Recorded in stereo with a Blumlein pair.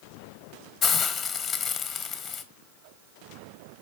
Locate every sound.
0.8 s a hiss: 25° left, 0.7 m